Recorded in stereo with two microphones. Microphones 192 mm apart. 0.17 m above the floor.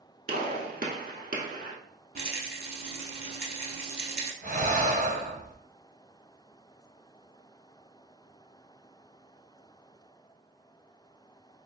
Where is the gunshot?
50° right (ahead or behind), 0.7 m.